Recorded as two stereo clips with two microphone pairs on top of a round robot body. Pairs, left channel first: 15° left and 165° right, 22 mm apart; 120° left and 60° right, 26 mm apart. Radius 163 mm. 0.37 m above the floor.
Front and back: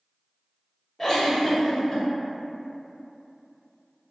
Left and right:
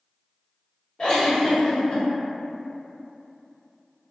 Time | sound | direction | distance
1.0 | a giggle | 70° left | 1.3 m